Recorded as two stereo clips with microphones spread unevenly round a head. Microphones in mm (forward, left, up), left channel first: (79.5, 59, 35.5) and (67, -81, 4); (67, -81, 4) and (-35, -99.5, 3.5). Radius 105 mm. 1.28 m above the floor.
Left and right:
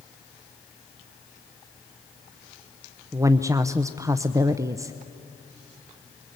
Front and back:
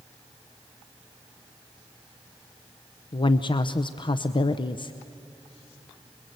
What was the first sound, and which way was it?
A woman speaking, 30° right.